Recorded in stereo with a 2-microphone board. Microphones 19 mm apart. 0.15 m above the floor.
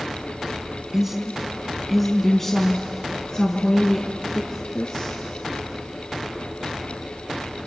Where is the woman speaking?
15° right (ahead or behind), 1.2 m; by 5.2 s 55° left (ahead or behind), 2 m.